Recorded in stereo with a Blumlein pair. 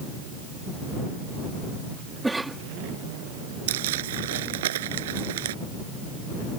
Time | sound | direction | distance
2.2 | a cough | 5° right | ?
3.7 | crumpling | 55° right | ?